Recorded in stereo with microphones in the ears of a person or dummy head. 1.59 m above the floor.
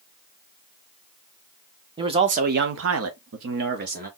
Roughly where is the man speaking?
Right.